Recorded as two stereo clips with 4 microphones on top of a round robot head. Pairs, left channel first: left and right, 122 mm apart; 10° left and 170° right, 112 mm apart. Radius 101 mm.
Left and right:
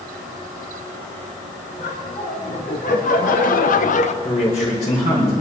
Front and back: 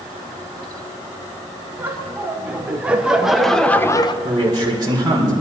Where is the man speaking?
135° left, 4.5 m.